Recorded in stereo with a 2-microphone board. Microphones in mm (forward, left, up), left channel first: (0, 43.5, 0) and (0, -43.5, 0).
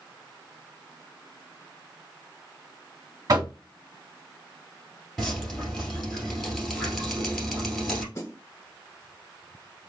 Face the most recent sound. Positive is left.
turn(degrees=35)  # may be behind; listen again after turning